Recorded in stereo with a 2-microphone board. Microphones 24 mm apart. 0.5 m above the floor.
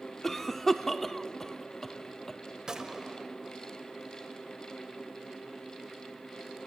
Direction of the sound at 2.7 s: 30° right (ahead or behind).